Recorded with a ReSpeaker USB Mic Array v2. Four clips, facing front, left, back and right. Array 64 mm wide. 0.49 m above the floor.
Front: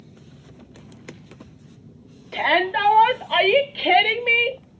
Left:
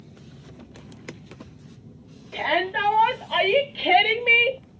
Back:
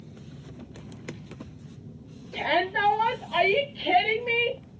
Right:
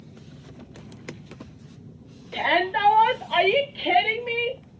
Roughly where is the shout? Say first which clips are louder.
Right 1 dB, front 5 dB; ahead.